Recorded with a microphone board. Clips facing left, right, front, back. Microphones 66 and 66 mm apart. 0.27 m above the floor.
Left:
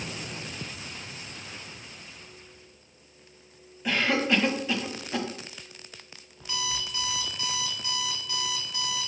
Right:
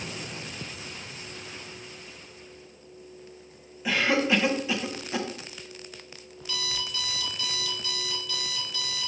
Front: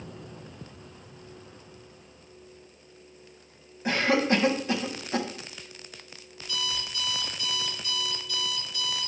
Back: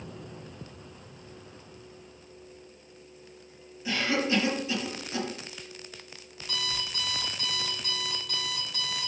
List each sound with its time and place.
3.9 s a cough: 5° right, 1.4 m
6.4 s an alarm clock: 155° left, 2 m